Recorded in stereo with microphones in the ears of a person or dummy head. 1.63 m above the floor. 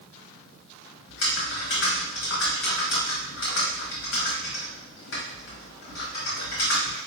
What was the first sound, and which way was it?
Typing on a keyboard, 65° left (ahead or behind).